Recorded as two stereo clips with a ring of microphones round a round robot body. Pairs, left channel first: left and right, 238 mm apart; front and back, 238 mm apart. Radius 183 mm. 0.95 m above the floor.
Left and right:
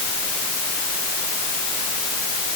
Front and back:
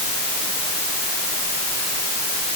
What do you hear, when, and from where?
Only background noise.